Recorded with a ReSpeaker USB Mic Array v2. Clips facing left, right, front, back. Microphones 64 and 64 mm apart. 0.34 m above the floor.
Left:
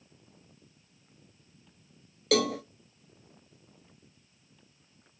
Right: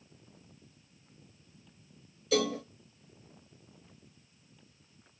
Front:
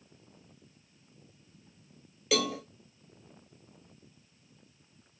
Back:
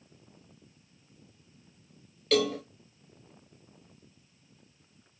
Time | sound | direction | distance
2.3 | a cowbell | 80° left | 1.3 m